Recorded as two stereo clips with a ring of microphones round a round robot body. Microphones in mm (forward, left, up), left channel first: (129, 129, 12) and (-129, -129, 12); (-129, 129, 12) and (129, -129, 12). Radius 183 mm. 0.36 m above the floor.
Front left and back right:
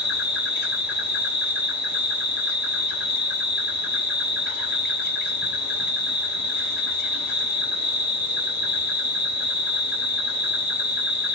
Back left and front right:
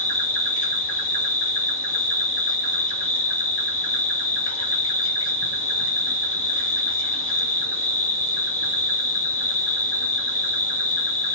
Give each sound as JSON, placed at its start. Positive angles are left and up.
{"t": 0.0, "sound": "an insect", "azimuth_deg": 145, "distance_m": 1.8}